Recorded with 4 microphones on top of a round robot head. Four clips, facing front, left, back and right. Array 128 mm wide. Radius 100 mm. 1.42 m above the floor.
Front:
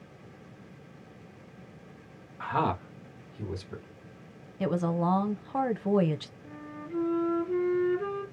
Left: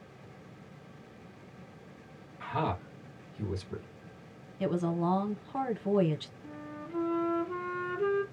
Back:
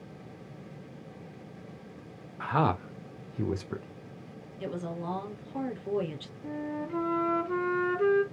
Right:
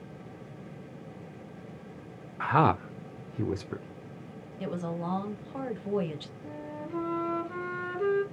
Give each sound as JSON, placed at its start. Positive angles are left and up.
{"t": 2.4, "sound": "a man speaking", "azimuth_deg": -85, "distance_m": 0.6}
{"t": 4.6, "sound": "a woman speaking", "azimuth_deg": 0, "distance_m": 0.8}
{"t": 6.4, "sound": "a flute", "azimuth_deg": -170, "distance_m": 0.7}